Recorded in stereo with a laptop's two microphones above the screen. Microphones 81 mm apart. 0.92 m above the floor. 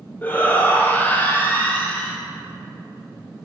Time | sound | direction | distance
0.2 | a shout | 20° left (ahead or behind) | 1.0 m